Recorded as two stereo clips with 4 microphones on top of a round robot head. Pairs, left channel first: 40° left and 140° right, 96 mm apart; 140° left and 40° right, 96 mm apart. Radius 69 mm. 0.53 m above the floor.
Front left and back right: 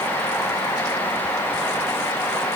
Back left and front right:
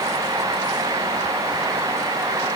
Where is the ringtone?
I don't hear a ringtone.